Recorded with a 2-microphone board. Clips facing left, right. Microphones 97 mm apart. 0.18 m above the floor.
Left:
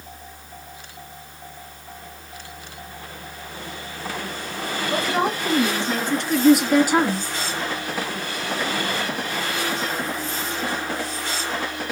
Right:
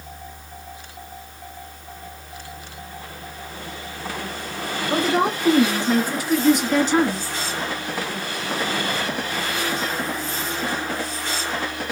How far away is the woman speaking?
About 2.5 m.